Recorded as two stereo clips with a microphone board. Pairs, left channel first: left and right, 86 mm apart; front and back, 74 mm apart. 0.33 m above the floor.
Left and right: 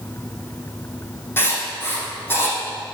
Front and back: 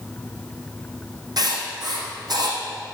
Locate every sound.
1.4 s writing: 155° left, 4 m